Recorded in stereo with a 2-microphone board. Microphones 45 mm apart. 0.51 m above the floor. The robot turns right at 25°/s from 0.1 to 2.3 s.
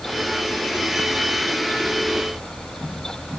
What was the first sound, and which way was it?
Only background noise.